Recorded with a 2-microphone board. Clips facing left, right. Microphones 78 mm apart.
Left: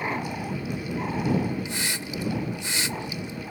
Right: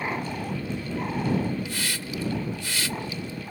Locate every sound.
1.6 s a hiss: 25° left (ahead or behind)